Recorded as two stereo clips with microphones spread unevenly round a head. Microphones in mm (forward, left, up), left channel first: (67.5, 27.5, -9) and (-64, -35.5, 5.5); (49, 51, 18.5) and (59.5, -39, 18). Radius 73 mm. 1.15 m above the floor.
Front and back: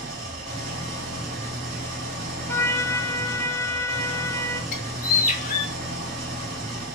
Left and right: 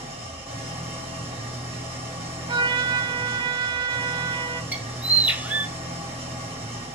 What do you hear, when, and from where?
0.0 s an engine running: 125° right, 3.5 m
2.5 s a trumpet: 45° right, 0.6 m
4.7 s a bird: 15° right, 1.6 m